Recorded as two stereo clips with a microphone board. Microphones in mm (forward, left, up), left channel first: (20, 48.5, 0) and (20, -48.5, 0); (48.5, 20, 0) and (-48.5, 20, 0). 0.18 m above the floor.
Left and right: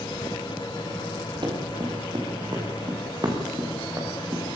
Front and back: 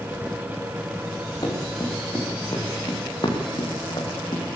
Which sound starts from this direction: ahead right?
Running footsteps, at 1.4 s.